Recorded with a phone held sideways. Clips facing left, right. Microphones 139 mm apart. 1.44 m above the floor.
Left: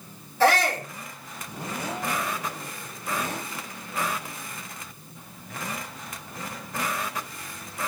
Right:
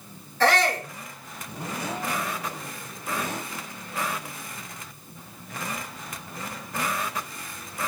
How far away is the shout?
About 3.5 m.